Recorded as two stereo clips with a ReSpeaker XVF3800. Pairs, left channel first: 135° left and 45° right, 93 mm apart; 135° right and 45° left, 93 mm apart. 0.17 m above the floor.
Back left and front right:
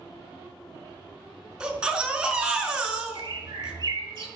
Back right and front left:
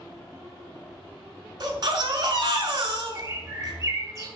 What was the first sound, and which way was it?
A baby crying, 30° left.